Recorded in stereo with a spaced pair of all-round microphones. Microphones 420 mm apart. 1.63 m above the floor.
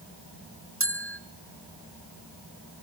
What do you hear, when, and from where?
0.8 s a bell: 30° right (ahead or behind), 0.7 m